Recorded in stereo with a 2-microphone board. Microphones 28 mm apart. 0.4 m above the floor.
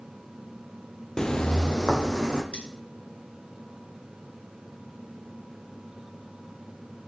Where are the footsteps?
25° left (ahead or behind), 0.5 m; by 2.4 s 30° left (ahead or behind), 1.3 m.